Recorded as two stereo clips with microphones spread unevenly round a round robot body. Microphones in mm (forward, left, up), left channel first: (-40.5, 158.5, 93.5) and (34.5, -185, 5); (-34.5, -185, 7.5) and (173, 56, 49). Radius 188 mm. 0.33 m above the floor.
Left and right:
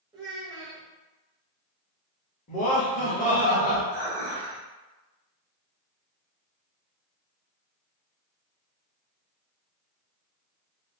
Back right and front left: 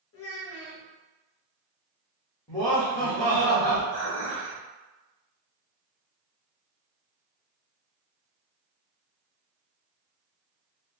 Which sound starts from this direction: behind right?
A child speaking, at 0.1 s.